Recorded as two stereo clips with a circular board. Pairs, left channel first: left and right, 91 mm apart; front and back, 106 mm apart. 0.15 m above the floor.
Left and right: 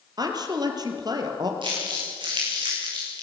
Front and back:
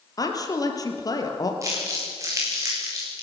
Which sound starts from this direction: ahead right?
A woman speaking, at 0.2 s.